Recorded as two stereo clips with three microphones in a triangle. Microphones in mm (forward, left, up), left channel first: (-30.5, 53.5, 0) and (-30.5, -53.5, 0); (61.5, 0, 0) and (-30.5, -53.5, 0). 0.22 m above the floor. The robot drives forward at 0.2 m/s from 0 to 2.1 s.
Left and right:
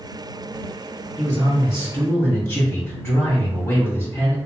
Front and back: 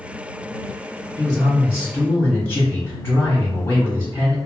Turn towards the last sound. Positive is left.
turn(degrees=70)